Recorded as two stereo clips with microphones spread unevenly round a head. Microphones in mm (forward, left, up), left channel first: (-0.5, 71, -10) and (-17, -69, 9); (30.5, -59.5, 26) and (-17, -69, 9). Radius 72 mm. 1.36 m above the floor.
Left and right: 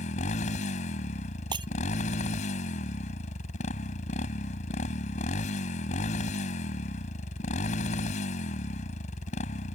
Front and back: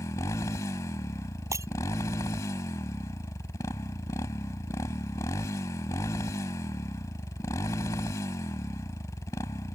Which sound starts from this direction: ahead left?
A motorcycle, at 0.0 s.